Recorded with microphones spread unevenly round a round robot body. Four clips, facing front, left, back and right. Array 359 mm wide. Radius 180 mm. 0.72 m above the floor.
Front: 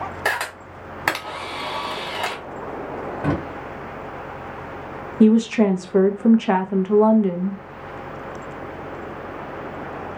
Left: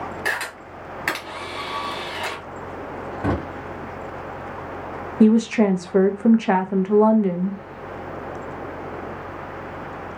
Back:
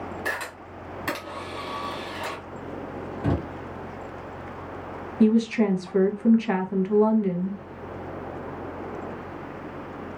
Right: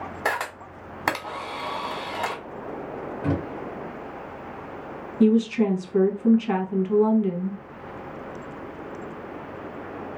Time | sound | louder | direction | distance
0.2 | a camera shutter | even, front 7 dB | 40° right | 1.1 m
3.2 | a drawer | left 3 dB, front 3 dB | 60° left | 1.1 m
5.2 | a woman speaking | left 3 dB, front 5 dB | 50° left | 0.5 m